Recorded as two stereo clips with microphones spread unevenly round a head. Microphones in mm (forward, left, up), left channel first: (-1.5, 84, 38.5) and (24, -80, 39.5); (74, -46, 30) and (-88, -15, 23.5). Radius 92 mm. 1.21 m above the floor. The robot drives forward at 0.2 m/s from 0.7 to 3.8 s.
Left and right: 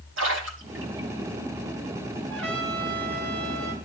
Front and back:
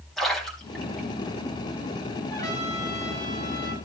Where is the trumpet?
80° right, 9.5 m.